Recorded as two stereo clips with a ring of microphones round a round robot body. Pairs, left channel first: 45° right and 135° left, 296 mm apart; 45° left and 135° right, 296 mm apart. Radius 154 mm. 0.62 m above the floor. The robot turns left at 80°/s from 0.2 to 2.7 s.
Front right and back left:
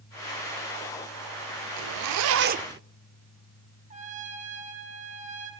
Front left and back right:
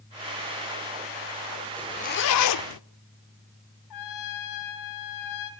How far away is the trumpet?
About 4.5 m.